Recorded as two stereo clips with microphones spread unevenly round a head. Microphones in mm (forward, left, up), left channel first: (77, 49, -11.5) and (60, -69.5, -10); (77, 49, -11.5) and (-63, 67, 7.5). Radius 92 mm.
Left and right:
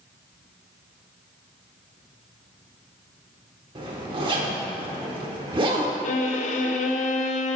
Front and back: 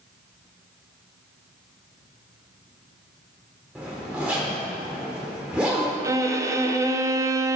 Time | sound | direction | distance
3.8 | a zipper | 115° right | 1.0 m
6.0 | a violin | 100° left | 0.6 m